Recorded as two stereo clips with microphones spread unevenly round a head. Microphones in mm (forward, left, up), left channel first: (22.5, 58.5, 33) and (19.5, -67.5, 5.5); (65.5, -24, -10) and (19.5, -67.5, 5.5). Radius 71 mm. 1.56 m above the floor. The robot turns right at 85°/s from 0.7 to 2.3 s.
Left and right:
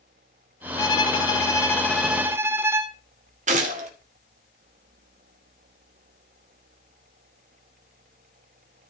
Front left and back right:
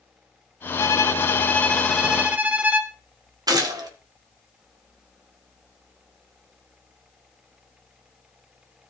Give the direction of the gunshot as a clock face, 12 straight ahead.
4 o'clock.